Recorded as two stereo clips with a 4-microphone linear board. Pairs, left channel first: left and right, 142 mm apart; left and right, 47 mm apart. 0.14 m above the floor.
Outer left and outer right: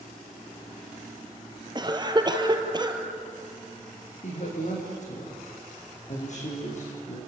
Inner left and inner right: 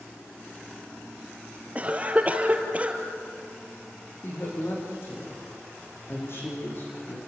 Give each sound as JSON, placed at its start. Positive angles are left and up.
{"t": 1.8, "sound": "a cough", "side_deg": -30, "distance_m": 2.5}
{"t": 4.2, "sound": "a woman speaking", "side_deg": 55, "distance_m": 7.0}